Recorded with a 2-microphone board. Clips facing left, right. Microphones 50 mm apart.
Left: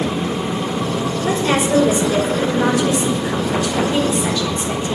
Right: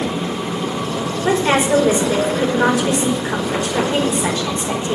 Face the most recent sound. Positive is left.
turn(degrees=-30)  # may be behind; listen again after turning